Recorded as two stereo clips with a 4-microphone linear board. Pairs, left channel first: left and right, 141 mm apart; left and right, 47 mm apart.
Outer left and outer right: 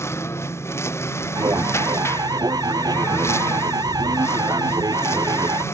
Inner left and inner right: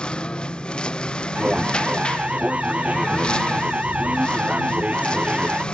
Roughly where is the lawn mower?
Centre.